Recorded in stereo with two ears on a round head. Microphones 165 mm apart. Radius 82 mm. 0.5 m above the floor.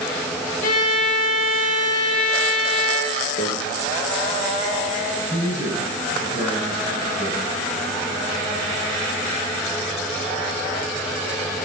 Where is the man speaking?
45° left (ahead or behind), 5 m.